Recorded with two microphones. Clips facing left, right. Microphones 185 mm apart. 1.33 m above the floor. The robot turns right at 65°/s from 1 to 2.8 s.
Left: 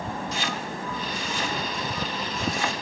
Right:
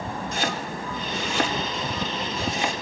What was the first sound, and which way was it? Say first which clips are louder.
Chopping: right 2 dB; 55° right (ahead or behind).